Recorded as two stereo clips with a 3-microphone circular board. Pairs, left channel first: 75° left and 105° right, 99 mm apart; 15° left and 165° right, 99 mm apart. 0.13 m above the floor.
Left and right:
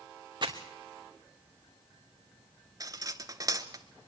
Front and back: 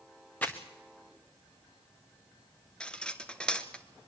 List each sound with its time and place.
0.4 s crumpling: 60° right, 2 m
2.8 s cutlery clinking: 65° right, 1.2 m